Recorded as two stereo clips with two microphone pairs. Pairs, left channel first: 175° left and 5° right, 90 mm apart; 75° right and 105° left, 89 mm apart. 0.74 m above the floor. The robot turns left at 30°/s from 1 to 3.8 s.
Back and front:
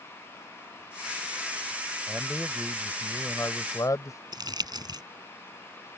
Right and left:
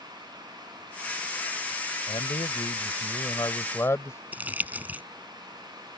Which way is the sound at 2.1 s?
85° right.